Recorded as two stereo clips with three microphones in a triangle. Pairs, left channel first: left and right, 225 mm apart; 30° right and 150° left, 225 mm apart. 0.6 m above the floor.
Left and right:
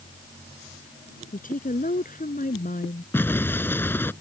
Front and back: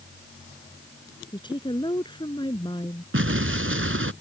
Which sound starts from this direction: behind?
An explosion, at 3.1 s.